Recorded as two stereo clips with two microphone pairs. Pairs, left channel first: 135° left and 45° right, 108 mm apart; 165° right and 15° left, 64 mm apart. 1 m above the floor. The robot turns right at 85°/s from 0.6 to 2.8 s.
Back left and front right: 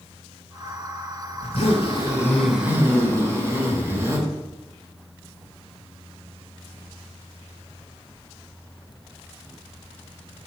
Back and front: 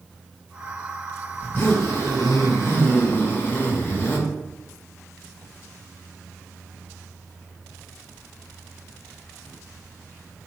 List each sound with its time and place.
1.4 s a zipper: 130° left, 2 m; by 4.2 s 110° right, 2 m